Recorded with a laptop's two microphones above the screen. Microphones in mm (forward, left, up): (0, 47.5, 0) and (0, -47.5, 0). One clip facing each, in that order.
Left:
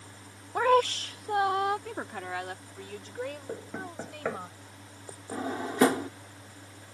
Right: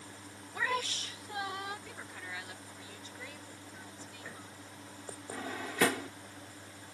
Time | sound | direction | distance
0.6 | a woman speaking | 50° left (ahead or behind) | ?
3.5 | knocking | 80° left | ?
5.3 | a drawer | 30° left (ahead or behind) | ?